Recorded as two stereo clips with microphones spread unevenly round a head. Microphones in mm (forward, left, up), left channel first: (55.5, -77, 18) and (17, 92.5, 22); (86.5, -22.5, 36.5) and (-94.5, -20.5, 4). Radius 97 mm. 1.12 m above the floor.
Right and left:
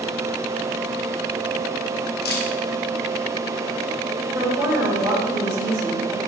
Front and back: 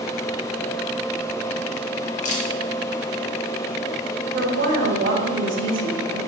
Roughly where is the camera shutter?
Ahead right.